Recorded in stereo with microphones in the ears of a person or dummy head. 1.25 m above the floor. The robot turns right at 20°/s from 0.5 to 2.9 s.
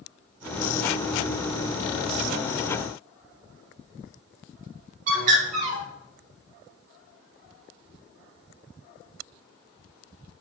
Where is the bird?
45° right (ahead or behind), 2 m.